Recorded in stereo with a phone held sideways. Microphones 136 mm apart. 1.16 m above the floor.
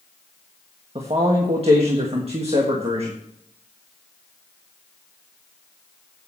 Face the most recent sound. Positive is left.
turn(degrees=-55)  # may be behind; listen again after turning